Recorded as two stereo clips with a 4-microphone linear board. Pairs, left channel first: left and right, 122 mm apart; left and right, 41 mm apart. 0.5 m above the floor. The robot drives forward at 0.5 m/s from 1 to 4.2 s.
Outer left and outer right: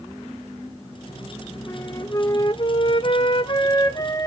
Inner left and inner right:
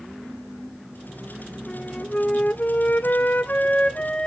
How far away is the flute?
About 0.8 m.